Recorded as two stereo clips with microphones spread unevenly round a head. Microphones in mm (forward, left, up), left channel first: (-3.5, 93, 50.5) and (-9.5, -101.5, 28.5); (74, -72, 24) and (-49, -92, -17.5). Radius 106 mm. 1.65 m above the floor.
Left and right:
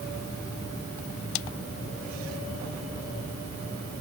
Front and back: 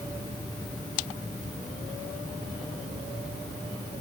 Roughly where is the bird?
I don't hear a bird.